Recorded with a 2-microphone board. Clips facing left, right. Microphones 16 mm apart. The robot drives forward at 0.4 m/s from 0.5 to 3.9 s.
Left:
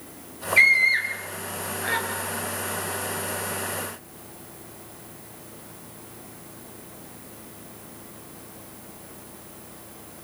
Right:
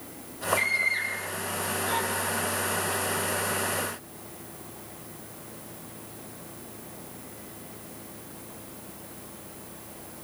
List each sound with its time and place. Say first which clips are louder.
0.6 s a scream: left 10 dB; 75° left (ahead or behind), 8 m; by 2.0 s 80° left, 7.5 m